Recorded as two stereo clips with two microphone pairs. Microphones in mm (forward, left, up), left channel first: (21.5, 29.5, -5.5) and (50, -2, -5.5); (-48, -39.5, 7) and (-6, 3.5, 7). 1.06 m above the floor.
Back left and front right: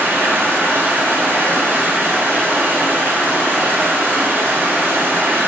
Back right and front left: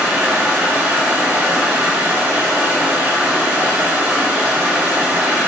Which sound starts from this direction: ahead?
Running water, at 0.0 s.